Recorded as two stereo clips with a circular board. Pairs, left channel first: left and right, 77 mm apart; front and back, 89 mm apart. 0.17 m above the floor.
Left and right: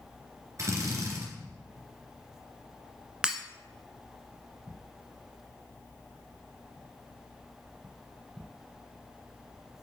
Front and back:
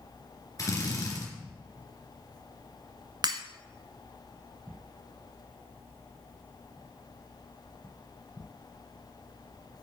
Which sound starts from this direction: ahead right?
A drill, at 0.6 s.